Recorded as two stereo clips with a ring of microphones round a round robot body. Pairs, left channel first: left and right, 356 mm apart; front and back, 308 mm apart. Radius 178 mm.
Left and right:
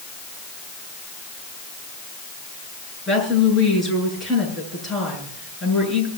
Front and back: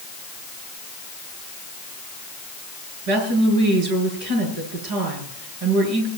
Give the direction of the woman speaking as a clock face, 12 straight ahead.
6 o'clock.